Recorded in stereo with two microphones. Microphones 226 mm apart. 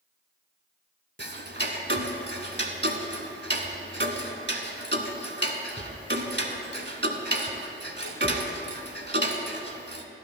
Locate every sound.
1.2 s ticking: 50° right (ahead or behind), 0.9 m